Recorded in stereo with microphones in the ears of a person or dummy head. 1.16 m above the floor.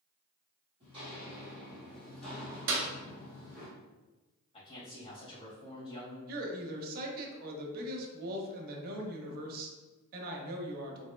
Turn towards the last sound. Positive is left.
turn(degrees=-50)  # may be behind; listen again after turning